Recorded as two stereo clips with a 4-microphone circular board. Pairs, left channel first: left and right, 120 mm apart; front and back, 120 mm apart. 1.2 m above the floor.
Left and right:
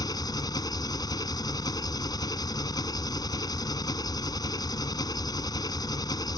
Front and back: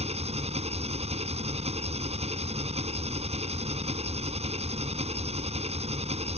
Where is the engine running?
150° left.